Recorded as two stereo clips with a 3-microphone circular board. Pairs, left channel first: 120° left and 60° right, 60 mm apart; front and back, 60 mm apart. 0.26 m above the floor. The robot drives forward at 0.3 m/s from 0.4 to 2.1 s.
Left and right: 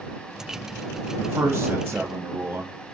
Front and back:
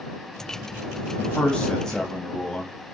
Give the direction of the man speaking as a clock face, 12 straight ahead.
2 o'clock.